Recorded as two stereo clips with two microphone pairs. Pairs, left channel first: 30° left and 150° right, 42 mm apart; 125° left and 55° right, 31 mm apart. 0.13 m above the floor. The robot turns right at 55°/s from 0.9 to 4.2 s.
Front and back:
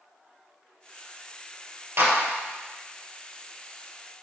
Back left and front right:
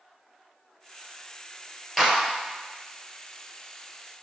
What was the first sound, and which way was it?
A clap, 145° right.